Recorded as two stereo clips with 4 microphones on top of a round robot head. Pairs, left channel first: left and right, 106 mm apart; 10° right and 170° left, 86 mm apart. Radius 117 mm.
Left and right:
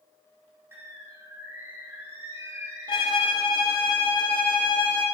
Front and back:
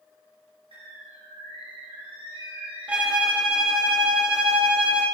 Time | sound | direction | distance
0.7 | a bird | 160° right | 1.9 m
2.9 | a violin | 105° left | 0.7 m